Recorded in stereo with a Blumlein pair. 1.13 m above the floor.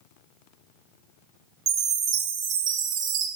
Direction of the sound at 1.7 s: 35° right.